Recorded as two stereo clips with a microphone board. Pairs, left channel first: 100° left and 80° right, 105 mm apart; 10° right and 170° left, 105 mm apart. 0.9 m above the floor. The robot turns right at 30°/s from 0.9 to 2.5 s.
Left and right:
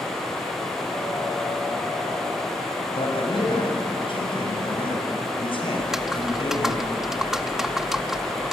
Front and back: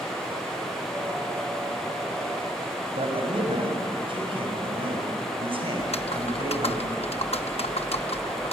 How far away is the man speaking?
About 6 m.